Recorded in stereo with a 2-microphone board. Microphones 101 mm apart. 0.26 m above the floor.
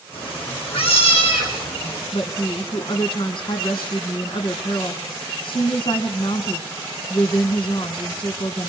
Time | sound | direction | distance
0.1 | a cat meowing | 70° left (ahead or behind) | 6 m
2.1 | a woman speaking | 60° left (ahead or behind) | 2.5 m